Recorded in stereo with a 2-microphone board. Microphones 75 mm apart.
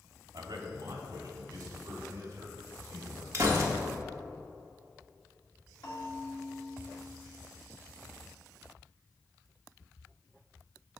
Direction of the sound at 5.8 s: 55° left (ahead or behind).